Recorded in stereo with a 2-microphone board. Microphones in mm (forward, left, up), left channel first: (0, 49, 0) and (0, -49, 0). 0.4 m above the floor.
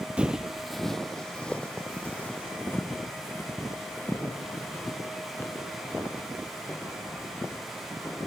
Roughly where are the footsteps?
Centre.